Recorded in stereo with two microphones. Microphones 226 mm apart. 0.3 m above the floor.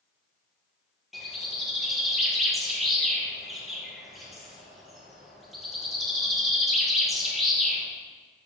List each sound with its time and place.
1.1 s a bird: centre (ahead or behind), 3.5 m